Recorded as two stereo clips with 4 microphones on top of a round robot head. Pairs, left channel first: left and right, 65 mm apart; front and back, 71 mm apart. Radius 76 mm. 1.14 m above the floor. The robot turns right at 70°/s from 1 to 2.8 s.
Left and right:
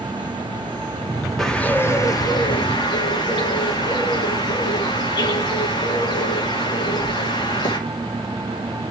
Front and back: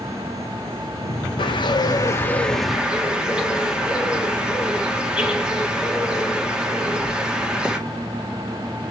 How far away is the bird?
About 2 m.